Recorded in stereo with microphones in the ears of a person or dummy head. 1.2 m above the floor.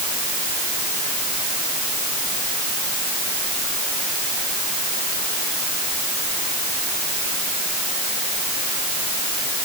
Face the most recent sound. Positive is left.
No sound to turn to.